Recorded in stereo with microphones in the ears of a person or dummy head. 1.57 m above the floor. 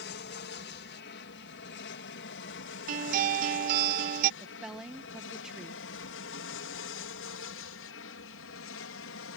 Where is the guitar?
50° right (ahead or behind).